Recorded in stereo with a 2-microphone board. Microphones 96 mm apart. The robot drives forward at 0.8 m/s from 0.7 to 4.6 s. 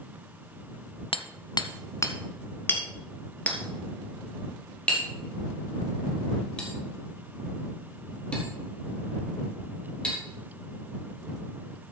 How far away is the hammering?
About 0.6 m.